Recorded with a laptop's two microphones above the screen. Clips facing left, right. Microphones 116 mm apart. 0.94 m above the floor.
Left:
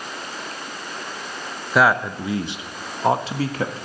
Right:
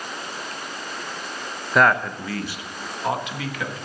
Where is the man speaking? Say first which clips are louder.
Left 1 dB; centre (ahead or behind), 0.7 m; by 3.9 s 35° left (ahead or behind), 1.6 m.